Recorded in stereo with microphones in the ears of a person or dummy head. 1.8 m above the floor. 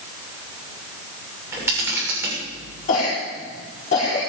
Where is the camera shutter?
15° right (ahead or behind), 6.5 m.